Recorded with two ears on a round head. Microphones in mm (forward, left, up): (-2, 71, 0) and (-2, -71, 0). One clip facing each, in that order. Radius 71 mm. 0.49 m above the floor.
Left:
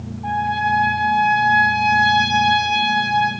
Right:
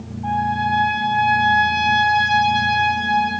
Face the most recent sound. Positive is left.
turn(degrees=10)  # may be behind; listen again after turning